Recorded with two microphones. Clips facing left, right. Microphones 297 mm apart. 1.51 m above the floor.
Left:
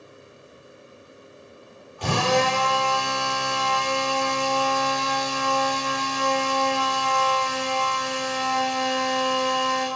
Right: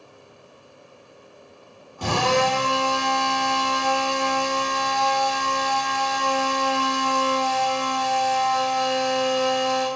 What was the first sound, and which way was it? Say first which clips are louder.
A drill: right 1 dB; 50° right (ahead or behind).